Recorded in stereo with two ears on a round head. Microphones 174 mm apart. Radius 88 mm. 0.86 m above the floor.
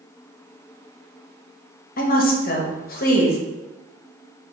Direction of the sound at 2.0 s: 45° left (ahead or behind).